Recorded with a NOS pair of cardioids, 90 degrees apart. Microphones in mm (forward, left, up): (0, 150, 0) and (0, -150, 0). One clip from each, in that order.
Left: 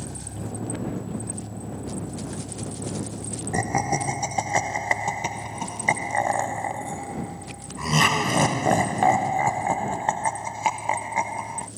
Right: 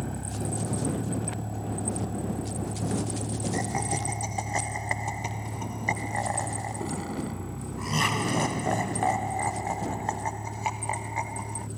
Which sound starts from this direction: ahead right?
A vehicle, at 0.0 s.